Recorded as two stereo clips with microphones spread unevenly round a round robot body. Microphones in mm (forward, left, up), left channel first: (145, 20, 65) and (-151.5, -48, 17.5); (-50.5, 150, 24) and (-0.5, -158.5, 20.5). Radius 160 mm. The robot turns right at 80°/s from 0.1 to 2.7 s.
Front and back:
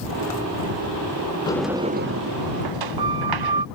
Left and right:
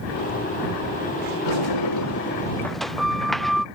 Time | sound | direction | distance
1.5 | a sliding door | 90° left | ?